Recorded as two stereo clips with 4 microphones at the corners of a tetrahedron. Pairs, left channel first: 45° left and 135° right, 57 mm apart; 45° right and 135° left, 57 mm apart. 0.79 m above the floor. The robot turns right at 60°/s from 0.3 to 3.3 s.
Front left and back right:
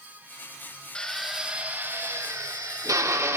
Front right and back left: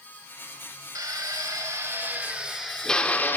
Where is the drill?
120° left, 0.9 m; by 3.4 s 100° right, 0.9 m.